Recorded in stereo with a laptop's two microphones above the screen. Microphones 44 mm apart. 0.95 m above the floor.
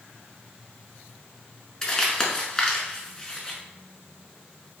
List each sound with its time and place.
1.8 s crumpling: 25° left (ahead or behind), 1.3 m